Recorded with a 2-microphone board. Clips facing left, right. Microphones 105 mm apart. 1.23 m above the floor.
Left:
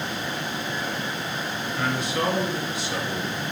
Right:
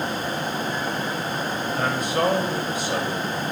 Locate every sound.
1.8 s a man speaking: 45° right (ahead or behind), 1.4 m